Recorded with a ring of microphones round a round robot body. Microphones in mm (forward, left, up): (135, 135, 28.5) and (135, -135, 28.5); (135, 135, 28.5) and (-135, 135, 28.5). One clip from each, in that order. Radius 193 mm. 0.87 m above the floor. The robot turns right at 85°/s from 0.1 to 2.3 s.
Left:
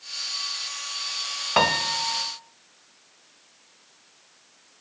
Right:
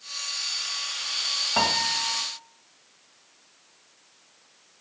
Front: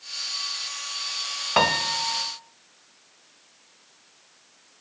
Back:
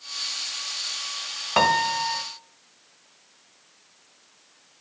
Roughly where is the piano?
Left.